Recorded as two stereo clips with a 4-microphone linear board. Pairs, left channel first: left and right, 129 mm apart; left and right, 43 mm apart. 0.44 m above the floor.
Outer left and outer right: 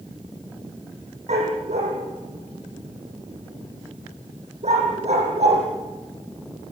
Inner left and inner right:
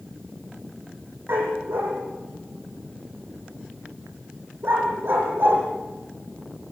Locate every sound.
1.3 s a dog barking: 60° right (ahead or behind), 6.5 m